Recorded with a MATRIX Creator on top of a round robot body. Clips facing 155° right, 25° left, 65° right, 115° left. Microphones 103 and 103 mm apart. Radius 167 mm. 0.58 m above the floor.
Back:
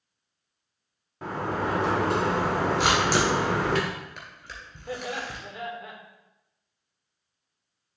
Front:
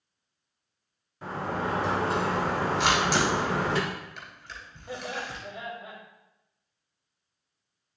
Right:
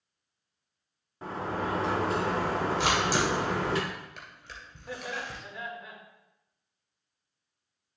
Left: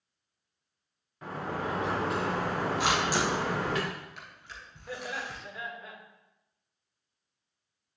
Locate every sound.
1.2 s a sliding door: 120° right, 1.7 m
2.8 s a camera shutter: 115° right, 2.5 m
4.9 s laughter: 155° right, 2.5 m